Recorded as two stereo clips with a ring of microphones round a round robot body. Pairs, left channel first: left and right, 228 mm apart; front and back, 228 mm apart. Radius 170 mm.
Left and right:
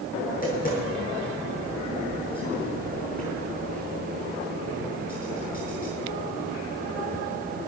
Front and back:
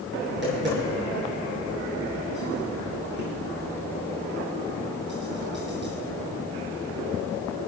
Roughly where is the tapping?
Behind left.